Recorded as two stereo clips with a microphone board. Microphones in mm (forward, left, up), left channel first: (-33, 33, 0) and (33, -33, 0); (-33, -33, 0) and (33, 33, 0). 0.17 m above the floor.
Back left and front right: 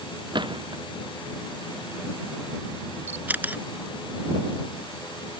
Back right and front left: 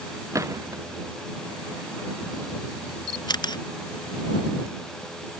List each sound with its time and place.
0.3 s a gunshot: 10° right
3.1 s a camera shutter: 110° right